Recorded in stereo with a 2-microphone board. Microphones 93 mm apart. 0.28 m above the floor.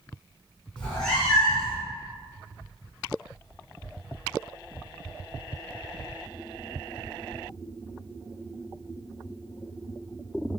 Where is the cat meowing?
10° left (ahead or behind), 1.3 m; by 1.8 s 5° right (ahead or behind), 1.9 m.